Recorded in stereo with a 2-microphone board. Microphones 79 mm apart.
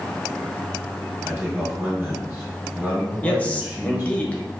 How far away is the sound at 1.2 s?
About 1.8 m.